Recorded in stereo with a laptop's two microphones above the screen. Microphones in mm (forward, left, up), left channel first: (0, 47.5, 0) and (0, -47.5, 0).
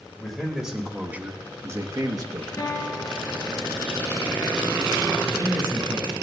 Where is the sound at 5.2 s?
25° right (ahead or behind), 8.5 m.